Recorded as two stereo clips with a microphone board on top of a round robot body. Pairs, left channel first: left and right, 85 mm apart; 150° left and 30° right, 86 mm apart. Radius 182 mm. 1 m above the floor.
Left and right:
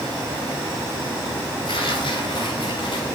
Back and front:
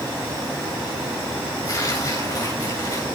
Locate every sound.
1.6 s tearing paper: 105° left, 9.5 m